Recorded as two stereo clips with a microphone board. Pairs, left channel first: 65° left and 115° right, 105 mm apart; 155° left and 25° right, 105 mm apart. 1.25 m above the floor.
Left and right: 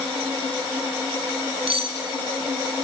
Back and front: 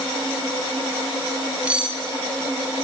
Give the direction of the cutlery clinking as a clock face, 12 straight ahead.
3 o'clock.